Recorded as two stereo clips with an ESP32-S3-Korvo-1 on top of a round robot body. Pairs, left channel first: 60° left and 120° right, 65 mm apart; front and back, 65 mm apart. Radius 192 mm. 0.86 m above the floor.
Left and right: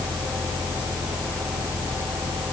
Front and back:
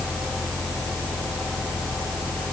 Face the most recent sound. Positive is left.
No sound to turn to.